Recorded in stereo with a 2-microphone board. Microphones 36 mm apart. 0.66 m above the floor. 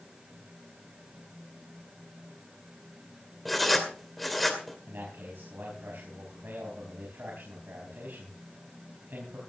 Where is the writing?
Centre (ahead or behind), 2.5 m.